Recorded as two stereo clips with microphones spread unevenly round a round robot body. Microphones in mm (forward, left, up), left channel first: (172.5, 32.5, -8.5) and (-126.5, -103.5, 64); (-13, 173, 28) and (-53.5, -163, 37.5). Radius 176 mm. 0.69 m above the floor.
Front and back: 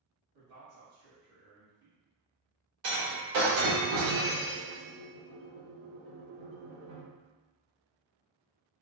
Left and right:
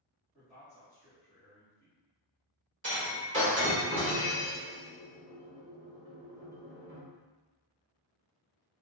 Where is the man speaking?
165° right, 1.8 m.